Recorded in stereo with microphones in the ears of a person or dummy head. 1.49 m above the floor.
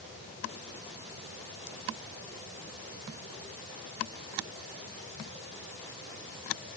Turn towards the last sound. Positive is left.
No sound to turn to.